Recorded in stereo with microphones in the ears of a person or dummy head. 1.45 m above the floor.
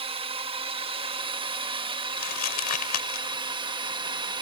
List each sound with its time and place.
0.0 s a drone: 25° right (ahead or behind); by 4.4 s 20° right (ahead or behind)
2.2 s crumpling: 50° left (ahead or behind)